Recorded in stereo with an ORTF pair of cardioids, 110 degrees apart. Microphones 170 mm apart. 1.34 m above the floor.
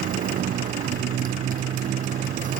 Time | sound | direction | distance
0.0 | a motorcycle | 55° right | ?